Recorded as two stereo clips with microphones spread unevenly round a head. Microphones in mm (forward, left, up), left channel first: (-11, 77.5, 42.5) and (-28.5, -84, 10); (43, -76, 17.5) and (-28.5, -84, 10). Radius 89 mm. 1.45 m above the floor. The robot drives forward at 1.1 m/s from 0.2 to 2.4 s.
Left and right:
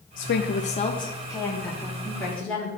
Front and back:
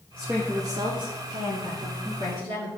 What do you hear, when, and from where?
0.2 s a woman speaking: 90° left, 0.6 m; by 2.7 s 170° left, 2.5 m